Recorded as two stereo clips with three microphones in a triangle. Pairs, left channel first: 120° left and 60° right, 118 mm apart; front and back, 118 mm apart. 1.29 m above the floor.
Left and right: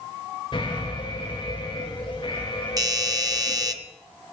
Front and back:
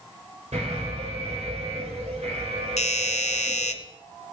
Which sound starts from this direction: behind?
An alarm, at 0.5 s.